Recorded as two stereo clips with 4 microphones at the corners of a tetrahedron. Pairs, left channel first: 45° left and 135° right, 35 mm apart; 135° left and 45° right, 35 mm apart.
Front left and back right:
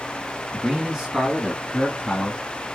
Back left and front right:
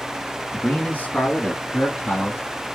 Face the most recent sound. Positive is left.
turn(degrees=125)